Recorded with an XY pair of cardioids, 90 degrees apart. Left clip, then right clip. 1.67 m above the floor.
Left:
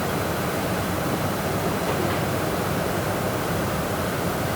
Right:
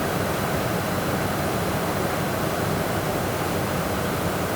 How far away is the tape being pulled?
I don't hear tape being pulled.